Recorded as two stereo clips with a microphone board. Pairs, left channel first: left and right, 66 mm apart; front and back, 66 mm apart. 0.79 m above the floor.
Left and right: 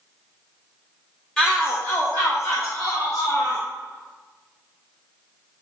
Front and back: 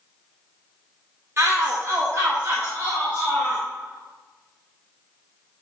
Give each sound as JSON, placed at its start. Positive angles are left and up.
{"t": 1.4, "sound": "a shout", "azimuth_deg": 165, "distance_m": 1.1}